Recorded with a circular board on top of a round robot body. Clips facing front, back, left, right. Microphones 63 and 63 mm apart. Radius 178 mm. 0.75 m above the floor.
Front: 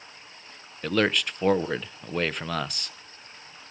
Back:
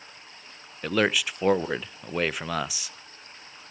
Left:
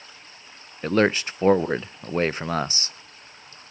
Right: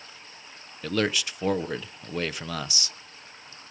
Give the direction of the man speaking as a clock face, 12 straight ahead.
9 o'clock.